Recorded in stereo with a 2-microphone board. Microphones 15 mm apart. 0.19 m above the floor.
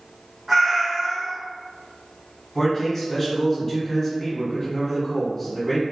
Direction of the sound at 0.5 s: 25° right (ahead or behind).